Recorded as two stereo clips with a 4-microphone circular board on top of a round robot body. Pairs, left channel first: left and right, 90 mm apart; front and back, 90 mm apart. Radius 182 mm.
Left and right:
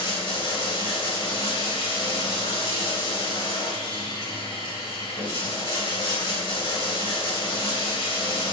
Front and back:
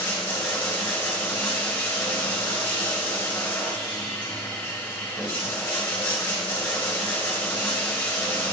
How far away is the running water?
About 3 m.